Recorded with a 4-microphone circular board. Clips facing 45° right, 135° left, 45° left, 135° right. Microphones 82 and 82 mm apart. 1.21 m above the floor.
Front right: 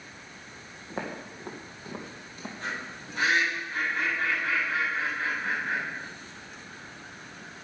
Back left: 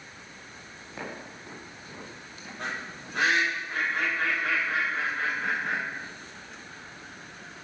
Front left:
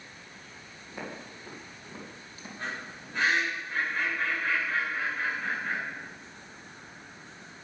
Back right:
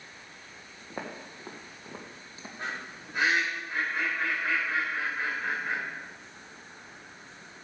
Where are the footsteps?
100° right, 3 m; by 2.5 s 75° right, 2 m.